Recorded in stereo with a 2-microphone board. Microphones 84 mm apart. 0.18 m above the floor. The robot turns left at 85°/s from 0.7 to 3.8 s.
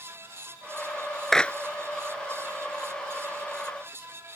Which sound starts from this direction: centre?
A clap, at 1.3 s.